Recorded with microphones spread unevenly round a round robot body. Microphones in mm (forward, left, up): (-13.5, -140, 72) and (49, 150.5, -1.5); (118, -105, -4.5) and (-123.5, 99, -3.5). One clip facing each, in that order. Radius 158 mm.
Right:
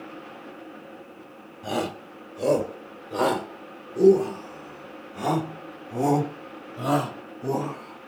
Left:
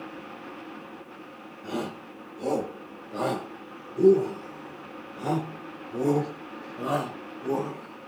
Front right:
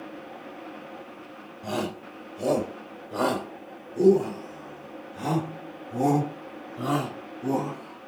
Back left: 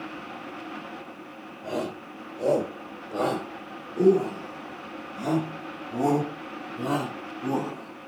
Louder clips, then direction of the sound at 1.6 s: Right 3 dB, front right 1 dB; 100° right.